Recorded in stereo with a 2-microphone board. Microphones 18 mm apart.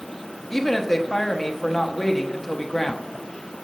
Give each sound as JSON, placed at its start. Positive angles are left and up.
{"t": 0.5, "sound": "a woman speaking", "side_deg": 15, "distance_m": 1.1}